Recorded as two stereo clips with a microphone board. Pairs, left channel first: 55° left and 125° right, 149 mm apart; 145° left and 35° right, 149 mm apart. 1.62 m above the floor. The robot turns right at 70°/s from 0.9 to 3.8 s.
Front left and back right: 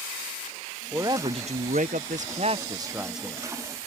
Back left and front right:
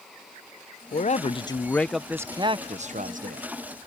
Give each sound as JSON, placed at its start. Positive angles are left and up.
{"t": 0.9, "sound": "a man speaking", "azimuth_deg": 165}